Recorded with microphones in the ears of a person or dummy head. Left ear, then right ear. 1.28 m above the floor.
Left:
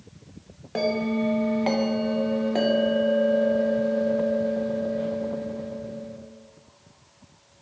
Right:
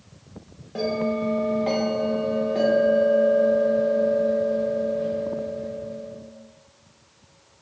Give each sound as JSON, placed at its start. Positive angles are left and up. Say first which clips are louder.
{"t": 0.8, "sound": "a bell", "louder": "even", "side_deg": 30, "distance_m": 0.5}